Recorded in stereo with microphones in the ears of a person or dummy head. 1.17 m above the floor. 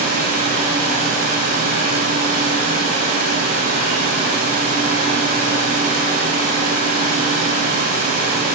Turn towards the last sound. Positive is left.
turn(degrees=-40)  # may be behind; listen again after turning